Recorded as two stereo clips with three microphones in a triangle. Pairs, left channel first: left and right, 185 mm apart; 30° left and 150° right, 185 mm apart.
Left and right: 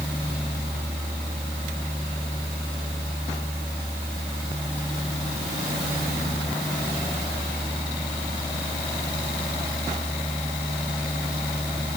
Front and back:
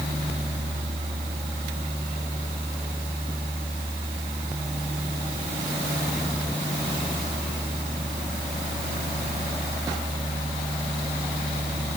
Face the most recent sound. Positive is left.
No sound to turn to.